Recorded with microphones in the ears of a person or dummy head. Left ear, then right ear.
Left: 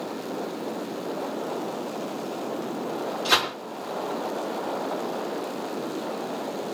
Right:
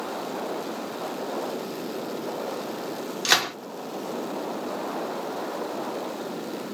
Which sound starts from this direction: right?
A gunshot, at 3.2 s.